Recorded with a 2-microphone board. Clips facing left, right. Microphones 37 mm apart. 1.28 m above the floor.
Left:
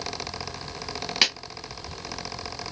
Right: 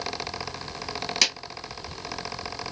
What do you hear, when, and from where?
1.2 s a clap: 25° left (ahead or behind), 1.1 m